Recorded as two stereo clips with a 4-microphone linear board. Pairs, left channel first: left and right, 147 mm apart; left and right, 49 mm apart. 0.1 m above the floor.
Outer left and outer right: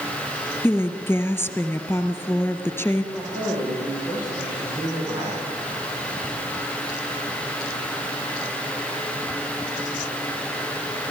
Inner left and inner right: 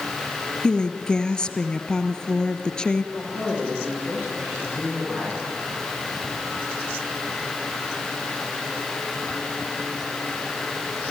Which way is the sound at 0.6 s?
15° left (ahead or behind).